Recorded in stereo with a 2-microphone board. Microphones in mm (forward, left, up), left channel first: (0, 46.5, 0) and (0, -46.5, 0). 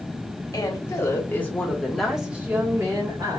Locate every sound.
0.5 s a woman speaking: 40° left (ahead or behind), 1.4 m; by 3.4 s 40° right (ahead or behind), 1.3 m